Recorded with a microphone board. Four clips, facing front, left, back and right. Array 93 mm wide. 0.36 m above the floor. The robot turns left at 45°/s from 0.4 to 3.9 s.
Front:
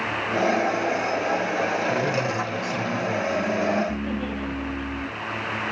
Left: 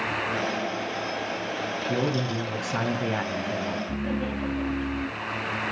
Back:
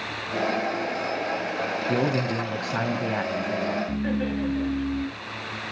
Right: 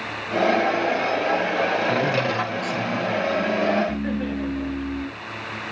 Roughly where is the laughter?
Behind right.